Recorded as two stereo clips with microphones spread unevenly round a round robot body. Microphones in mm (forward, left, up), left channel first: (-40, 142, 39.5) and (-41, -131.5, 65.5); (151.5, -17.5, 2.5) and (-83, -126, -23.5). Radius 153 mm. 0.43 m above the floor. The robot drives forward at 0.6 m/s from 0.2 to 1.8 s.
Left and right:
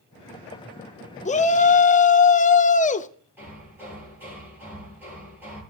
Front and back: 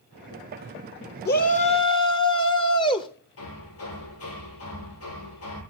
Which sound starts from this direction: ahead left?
A shout, at 1.2 s.